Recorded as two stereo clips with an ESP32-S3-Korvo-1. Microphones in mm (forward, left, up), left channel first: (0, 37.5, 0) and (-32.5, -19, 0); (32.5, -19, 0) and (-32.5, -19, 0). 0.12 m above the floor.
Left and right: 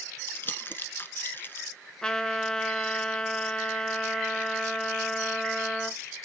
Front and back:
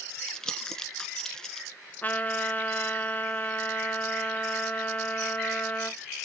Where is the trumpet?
5° right, 0.6 m.